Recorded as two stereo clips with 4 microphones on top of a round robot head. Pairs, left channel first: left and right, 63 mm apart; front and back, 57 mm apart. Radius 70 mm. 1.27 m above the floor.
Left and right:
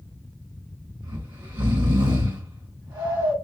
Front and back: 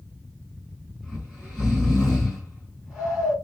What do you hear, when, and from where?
1.0 s snoring: 85° right, 4 m